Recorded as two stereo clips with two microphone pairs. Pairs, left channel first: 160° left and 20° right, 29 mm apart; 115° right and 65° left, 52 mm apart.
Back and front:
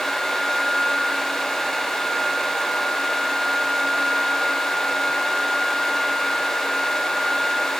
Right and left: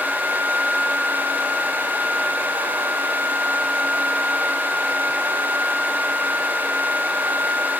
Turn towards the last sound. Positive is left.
No sound to turn to.